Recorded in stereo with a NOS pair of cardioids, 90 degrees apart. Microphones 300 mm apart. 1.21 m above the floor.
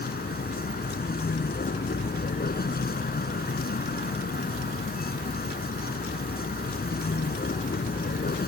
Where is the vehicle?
30° left.